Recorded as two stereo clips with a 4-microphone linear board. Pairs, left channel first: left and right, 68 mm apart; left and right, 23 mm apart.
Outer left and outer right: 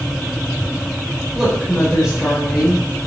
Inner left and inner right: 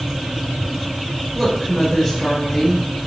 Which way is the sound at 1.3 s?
10° right (ahead or behind).